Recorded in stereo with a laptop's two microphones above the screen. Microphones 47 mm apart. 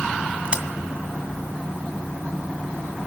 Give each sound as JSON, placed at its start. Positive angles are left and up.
{"t": 0.5, "sound": "a crack", "side_deg": -25, "distance_m": 2.0}